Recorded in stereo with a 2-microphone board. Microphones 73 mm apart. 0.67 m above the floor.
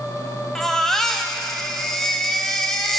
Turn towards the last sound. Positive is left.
turn(degrees=5)  # may be behind; listen again after turning